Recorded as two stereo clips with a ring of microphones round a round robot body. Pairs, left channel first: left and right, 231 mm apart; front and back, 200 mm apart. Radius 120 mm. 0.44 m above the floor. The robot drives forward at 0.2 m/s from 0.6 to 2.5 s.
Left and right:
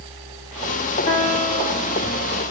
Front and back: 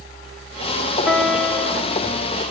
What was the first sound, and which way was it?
A piano, 70° left.